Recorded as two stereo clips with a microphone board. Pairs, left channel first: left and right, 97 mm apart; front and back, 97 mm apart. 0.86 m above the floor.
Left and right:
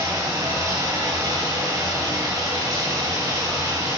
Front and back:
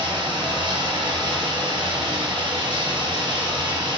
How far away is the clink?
I don't hear a clink.